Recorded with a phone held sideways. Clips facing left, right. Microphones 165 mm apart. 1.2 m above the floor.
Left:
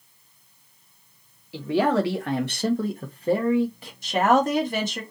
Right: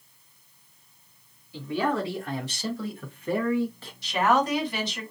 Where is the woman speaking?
45° left (ahead or behind), 1.2 m.